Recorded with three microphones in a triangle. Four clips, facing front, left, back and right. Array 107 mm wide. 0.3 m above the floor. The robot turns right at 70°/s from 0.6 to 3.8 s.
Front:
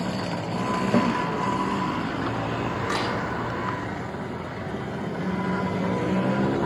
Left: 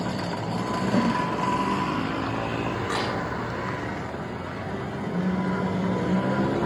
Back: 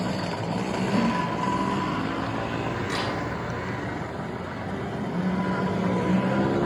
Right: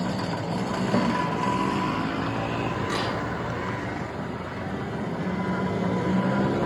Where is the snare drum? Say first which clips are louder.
Left 1 dB, front 2 dB; 20° right, 1.6 m; by 1.1 s 10° right, 1.6 m.